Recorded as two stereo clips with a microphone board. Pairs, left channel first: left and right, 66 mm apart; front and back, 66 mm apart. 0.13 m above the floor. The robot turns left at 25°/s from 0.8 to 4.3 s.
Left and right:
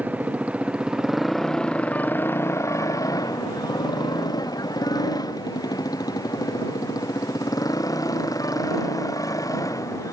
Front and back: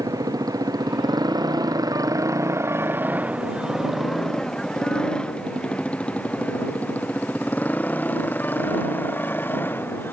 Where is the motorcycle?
155° right; by 10.1 s 60° left.